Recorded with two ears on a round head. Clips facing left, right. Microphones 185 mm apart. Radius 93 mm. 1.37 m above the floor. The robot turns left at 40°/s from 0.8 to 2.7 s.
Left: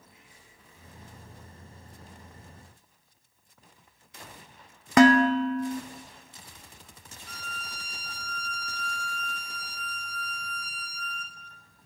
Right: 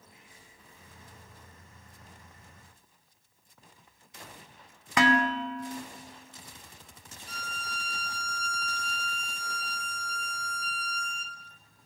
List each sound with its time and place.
5.0 s dishes clattering: 35° left (ahead or behind), 0.7 m
7.3 s a violin: 25° right (ahead or behind), 0.9 m